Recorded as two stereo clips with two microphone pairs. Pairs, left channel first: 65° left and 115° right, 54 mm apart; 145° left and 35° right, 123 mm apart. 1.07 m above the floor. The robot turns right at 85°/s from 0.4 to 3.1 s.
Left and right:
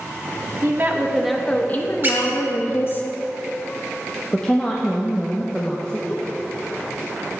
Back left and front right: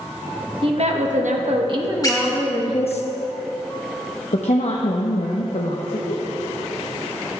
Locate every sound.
0.6 s a woman speaking: 80° right, 1.0 m; by 3.0 s 125° left, 1.0 m
2.0 s a squeak: 160° right, 1.1 m; by 2.3 s 135° right, 1.1 m
4.3 s a woman speaking: 135° left, 0.7 m